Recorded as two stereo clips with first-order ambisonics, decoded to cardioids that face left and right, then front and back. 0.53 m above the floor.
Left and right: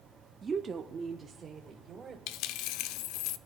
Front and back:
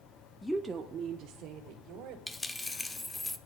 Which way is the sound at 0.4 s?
65° right.